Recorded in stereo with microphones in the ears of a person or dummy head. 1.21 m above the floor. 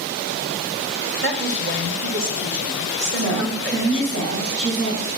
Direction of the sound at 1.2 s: 50° right (ahead or behind).